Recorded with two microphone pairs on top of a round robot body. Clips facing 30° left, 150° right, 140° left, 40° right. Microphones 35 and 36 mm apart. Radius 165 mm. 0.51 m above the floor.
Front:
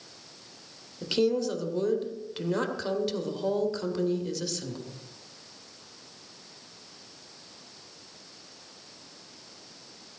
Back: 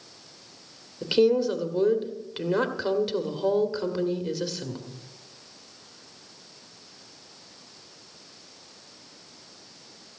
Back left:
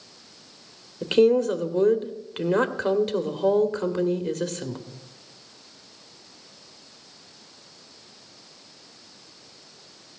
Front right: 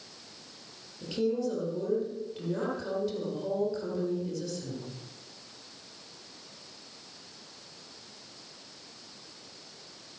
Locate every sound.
1.0 s a woman speaking: 140° left, 1.7 m